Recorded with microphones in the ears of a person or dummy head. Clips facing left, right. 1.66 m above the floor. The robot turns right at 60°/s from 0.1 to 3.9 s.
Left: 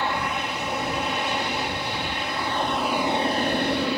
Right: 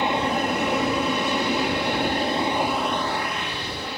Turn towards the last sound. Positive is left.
turn(degrees=65)